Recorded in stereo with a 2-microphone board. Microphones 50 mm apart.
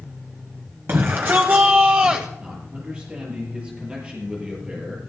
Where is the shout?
50° right (ahead or behind), 1.5 m; by 2.3 s 20° right (ahead or behind), 1.0 m.